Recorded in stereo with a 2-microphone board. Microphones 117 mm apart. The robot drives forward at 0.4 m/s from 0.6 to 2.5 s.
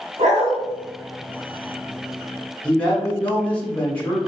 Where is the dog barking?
80° right, 1.0 m.